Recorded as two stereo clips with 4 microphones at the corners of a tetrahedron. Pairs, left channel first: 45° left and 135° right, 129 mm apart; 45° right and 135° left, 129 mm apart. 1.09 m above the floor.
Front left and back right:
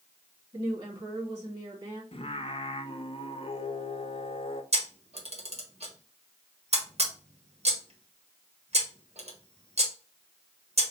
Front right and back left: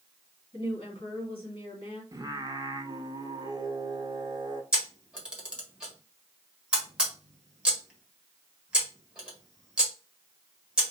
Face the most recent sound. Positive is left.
turn(degrees=-145)